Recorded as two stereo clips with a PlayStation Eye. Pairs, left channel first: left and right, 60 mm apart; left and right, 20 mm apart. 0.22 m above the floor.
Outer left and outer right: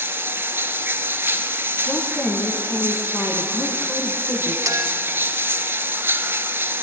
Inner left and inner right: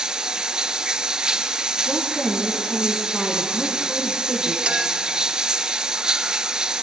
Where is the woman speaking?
45° left (ahead or behind), 2.5 m.